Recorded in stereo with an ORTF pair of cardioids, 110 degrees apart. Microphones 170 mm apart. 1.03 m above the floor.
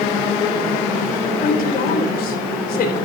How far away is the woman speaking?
About 3.5 m.